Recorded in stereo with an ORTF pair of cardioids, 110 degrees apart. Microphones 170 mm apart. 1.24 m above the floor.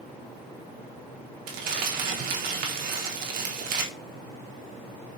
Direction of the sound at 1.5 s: 60° right.